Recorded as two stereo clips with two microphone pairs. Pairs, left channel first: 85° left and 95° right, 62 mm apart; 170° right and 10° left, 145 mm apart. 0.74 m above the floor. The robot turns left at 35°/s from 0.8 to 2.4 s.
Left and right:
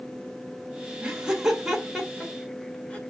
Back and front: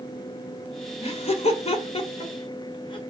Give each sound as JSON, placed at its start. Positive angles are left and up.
{"t": 1.0, "sound": "laughter", "azimuth_deg": -155, "distance_m": 0.8}